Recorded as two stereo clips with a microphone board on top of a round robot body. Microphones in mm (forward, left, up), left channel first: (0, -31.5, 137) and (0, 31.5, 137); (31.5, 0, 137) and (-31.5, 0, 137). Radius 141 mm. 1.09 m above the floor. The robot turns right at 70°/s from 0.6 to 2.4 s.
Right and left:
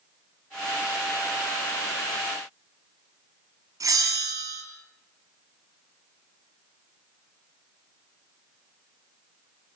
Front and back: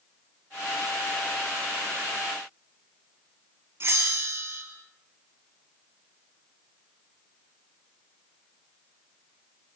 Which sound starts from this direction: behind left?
A bell, at 3.8 s.